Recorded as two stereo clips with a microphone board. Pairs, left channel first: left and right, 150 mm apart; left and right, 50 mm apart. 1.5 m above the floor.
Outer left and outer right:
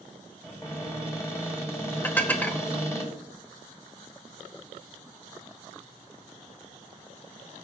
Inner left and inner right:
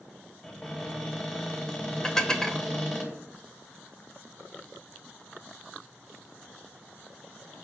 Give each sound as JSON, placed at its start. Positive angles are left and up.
{"t": 0.4, "sound": "a cupboard door", "side_deg": 20, "distance_m": 2.0}
{"t": 2.0, "sound": "dishes clattering", "side_deg": 10, "distance_m": 0.7}